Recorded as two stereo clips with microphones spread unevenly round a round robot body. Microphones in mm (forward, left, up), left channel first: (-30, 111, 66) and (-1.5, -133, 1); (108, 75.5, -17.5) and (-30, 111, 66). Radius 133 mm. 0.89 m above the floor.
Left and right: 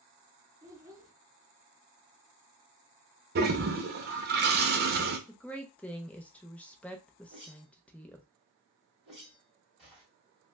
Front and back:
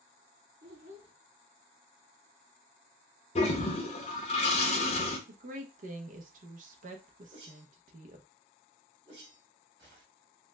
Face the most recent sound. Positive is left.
turn(degrees=-165)